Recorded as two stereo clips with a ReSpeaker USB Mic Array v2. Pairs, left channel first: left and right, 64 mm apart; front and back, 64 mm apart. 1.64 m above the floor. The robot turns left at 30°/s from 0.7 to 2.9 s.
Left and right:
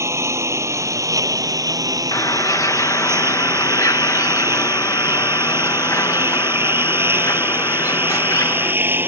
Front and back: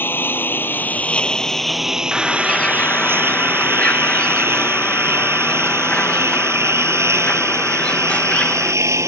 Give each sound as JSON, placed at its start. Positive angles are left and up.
{"t": 0.0, "sound": "a lawn mower", "azimuth_deg": -55}
{"t": 2.1, "sound": "a bird", "azimuth_deg": 90}